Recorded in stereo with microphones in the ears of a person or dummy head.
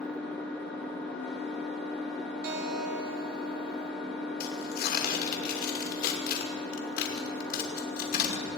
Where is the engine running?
Centre (ahead or behind), 4 m.